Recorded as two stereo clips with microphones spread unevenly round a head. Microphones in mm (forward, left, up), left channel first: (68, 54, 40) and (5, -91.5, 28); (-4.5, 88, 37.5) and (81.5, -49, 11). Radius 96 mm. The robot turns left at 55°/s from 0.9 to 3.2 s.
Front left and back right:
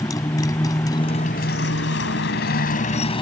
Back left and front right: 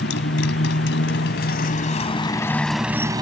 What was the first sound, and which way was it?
A motorcycle, 135° left.